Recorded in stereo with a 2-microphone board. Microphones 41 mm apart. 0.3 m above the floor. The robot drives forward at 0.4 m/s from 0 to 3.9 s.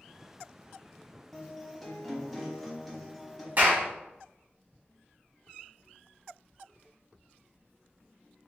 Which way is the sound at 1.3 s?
5° left (ahead or behind).